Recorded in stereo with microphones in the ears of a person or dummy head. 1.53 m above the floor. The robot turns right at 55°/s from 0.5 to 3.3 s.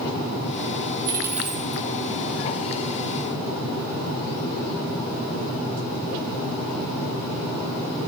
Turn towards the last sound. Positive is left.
turn(degrees=95)